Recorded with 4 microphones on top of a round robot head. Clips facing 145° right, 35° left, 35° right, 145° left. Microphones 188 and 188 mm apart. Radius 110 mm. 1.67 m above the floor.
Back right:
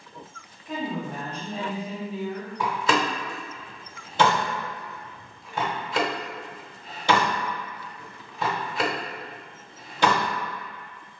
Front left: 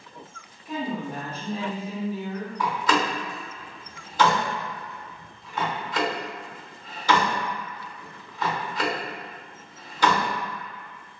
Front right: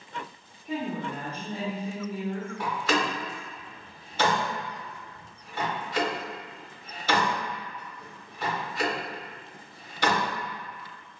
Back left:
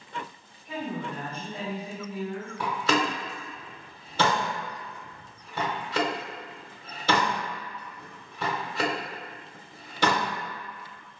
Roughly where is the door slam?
Behind left.